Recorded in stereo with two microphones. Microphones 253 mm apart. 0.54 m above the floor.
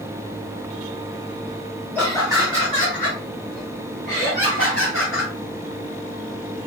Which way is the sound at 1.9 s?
5° left (ahead or behind).